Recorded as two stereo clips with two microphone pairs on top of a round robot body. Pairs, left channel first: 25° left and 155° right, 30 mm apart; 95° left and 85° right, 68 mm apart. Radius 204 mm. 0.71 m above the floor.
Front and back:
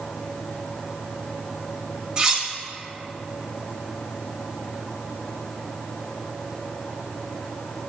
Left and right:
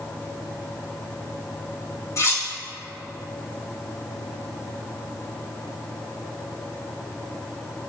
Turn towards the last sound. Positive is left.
turn(degrees=140)